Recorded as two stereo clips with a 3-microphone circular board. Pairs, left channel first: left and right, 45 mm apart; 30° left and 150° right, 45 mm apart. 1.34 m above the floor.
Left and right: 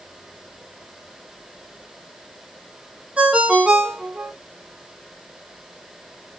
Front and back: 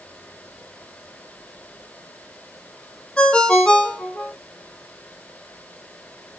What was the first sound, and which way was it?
A ringtone, 40° right.